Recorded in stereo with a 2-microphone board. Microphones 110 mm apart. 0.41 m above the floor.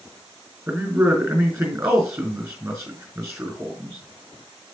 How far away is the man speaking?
About 4.5 m.